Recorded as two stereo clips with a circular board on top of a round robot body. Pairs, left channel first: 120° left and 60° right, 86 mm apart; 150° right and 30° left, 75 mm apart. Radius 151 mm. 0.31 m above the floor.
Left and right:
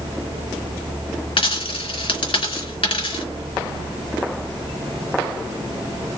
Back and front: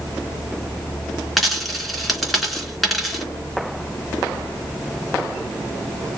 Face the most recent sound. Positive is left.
turn(degrees=120)